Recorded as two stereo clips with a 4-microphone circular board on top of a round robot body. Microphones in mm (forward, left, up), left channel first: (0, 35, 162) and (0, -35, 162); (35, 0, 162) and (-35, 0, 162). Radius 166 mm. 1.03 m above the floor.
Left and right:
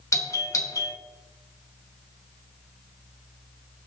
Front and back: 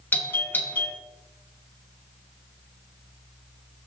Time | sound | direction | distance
0.1 | a doorbell | 60° left | 2.5 m